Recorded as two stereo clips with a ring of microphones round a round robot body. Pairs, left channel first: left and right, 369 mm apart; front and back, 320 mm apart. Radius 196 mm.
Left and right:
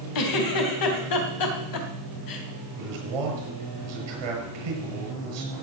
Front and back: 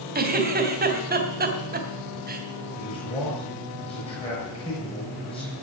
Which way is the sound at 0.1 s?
120° left.